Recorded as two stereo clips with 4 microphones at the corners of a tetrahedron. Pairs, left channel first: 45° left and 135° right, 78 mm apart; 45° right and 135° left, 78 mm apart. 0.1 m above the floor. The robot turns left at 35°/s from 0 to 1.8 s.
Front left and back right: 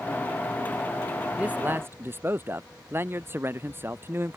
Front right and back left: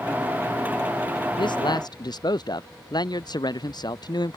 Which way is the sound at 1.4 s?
60° right.